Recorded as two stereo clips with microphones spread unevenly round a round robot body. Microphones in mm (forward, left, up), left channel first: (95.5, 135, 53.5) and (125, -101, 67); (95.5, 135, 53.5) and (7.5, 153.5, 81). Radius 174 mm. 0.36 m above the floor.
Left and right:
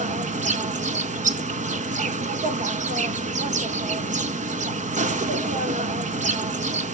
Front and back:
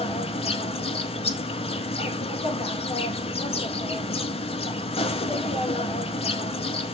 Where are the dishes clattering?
I don't hear dishes clattering.